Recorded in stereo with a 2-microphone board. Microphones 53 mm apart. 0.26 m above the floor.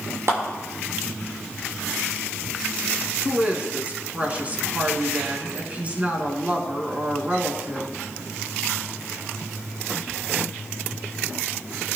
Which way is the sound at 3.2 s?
30° right (ahead or behind).